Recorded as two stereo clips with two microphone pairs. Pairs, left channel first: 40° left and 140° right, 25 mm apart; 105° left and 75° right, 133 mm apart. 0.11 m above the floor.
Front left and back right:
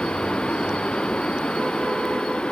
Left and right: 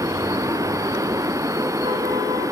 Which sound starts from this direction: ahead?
Running water, at 0.0 s.